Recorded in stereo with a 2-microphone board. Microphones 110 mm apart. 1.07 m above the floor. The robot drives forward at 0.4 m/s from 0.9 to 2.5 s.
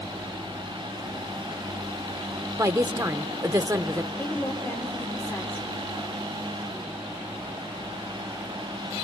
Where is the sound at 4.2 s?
15° left (ahead or behind), 3.5 m.